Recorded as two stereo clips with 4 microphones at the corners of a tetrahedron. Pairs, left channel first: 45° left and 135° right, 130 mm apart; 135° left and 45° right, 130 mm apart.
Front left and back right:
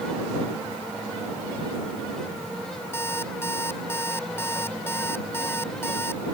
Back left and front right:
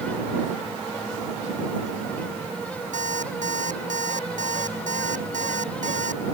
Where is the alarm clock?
25° right.